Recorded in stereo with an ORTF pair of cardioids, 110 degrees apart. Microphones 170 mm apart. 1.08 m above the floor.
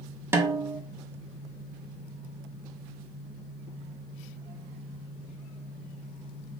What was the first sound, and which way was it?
A snare drum, 15° right.